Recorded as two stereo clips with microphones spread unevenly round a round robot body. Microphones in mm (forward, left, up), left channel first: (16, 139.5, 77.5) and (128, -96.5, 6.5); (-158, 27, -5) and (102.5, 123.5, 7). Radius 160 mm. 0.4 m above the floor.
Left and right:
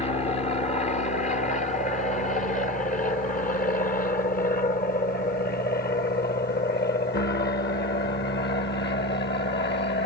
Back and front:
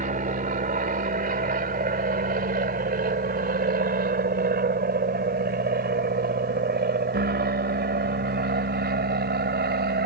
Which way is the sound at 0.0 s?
45° left.